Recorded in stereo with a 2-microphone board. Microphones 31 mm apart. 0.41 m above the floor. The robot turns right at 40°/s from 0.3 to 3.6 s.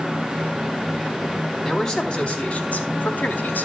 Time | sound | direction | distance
1.6 | a man speaking | 5° left | 3.5 m